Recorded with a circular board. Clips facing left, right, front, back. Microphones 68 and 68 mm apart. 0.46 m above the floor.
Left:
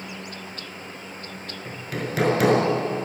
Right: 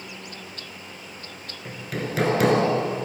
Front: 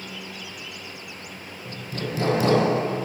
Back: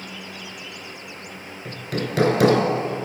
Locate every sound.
1.6 s hammering: straight behind, 4.5 m